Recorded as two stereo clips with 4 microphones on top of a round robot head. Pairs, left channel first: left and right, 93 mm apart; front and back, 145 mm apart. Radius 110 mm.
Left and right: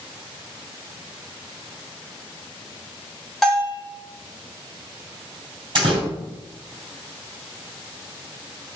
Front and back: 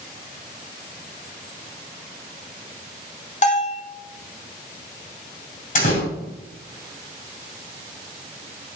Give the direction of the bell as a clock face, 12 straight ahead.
12 o'clock.